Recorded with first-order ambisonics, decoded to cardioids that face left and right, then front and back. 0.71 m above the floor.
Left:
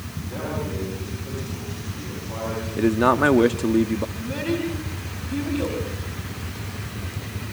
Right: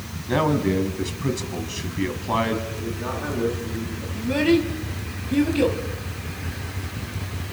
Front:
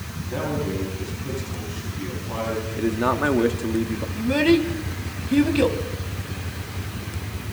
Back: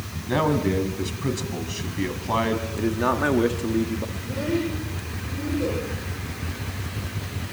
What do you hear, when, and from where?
0.3 s a man speaking: 130° right, 4.5 m
2.8 s a man speaking: 85° left, 1.2 m
4.2 s a child speaking: 25° right, 4 m